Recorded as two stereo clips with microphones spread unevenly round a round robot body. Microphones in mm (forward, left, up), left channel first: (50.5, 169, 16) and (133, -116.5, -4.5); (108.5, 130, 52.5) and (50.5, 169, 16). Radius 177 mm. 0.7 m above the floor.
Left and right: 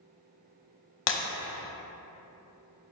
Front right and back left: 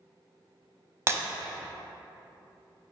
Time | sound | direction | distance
1.1 | breaking glass | 75° left | 0.8 m